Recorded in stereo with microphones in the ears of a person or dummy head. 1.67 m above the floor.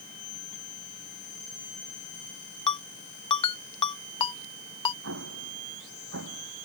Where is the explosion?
75° right (ahead or behind).